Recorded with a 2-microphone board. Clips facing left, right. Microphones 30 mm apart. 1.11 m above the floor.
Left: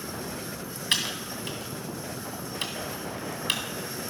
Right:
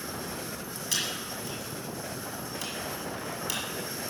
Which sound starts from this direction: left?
Typing on a keyboard, at 0.9 s.